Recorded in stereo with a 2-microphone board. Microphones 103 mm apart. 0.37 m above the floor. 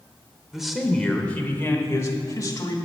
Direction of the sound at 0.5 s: 5° right (ahead or behind).